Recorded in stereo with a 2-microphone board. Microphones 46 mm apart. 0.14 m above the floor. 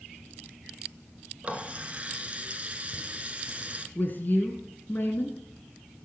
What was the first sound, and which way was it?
A running tap, 25° right (ahead or behind).